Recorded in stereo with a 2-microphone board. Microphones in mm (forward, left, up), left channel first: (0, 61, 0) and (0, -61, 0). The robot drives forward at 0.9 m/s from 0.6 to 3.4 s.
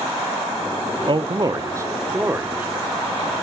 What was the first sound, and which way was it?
A man speaking, 45° right (ahead or behind).